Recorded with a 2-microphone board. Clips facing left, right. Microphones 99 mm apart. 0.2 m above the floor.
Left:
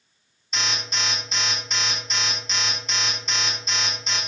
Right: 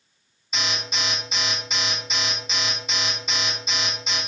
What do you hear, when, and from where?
0.5 s an alarm: 5° right (ahead or behind), 1.0 m